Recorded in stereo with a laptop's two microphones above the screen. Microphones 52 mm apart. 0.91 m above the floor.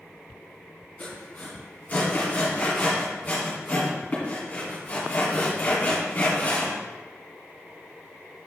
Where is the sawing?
35° left (ahead or behind), 2 m.